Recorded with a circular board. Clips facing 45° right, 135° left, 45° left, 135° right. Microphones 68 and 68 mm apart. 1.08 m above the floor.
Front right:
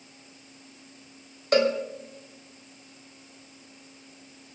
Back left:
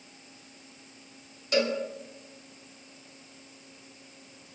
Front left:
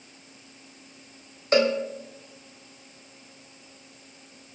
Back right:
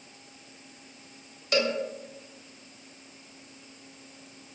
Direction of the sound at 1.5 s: 10° right.